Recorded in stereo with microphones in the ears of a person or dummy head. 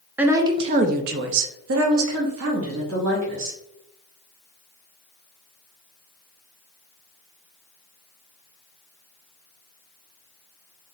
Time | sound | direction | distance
0.2 | a woman speaking | 10° right (ahead or behind) | 0.6 m